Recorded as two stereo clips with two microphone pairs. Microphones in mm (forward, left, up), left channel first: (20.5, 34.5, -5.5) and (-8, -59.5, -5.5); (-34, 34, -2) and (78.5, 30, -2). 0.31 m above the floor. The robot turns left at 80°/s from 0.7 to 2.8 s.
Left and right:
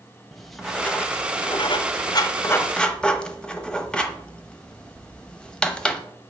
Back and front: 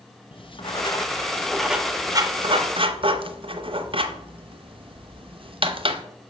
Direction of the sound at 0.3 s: 160° left.